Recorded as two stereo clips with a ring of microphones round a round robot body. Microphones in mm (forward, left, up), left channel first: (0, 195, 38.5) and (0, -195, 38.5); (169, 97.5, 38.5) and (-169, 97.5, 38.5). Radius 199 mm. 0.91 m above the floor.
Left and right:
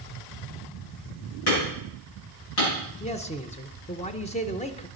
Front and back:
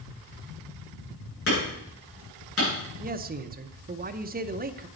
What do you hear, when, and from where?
1.5 s hammering: 55° left, 8.5 m
3.0 s a man speaking: 145° left, 0.7 m